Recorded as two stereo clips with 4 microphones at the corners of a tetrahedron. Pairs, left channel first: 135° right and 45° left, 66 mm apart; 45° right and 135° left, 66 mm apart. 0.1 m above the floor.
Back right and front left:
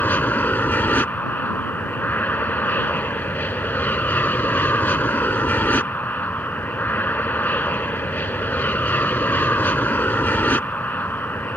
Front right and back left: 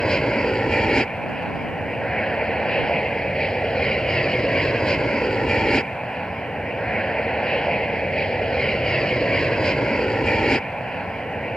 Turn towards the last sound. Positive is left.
turn(degrees=-115)